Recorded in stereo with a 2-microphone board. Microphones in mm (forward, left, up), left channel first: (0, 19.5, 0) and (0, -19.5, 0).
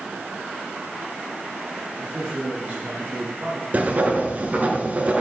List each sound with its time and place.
2.0 s a man speaking: 20° right (ahead or behind), 3.5 m; by 3.6 s 55° right (ahead or behind), 3.5 m
3.7 s writing: 40° right (ahead or behind), 1.8 m